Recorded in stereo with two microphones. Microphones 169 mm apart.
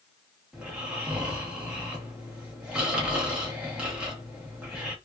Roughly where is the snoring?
Centre.